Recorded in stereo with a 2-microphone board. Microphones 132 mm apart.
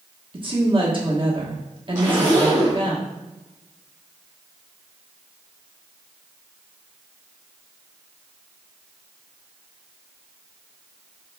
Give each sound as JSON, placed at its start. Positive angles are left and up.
{"t": 0.3, "sound": "a woman speaking", "side_deg": -40, "distance_m": 1.2}
{"t": 1.9, "sound": "a zipper", "side_deg": -25, "distance_m": 2.0}